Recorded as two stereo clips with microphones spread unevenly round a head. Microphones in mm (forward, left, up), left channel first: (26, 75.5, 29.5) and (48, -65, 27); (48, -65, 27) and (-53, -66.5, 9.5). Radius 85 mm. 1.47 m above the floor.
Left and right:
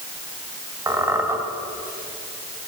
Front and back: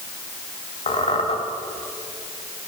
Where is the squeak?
10° right, 2.5 m.